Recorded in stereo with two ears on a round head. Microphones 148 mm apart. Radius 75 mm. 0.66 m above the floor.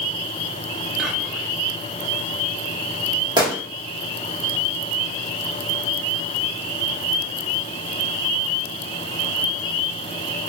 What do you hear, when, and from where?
1.0 s whispering: centre (ahead or behind), 1.0 m
3.4 s a gunshot: 25° right (ahead or behind), 1.4 m